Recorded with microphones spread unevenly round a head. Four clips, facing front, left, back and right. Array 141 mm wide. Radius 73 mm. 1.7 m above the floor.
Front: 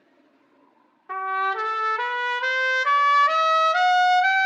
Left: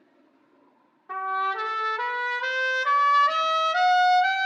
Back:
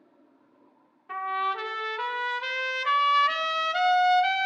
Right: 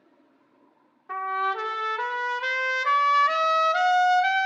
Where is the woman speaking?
No woman speaking in this recording.